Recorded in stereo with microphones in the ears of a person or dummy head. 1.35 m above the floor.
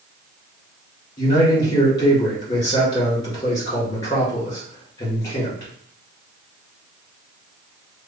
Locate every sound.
1.2 s a man speaking: 20° left (ahead or behind), 1.9 m